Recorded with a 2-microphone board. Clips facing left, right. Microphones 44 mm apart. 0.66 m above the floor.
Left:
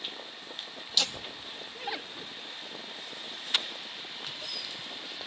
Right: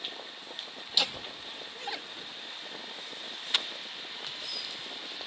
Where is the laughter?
15° right (ahead or behind); by 5.3 s 20° left (ahead or behind).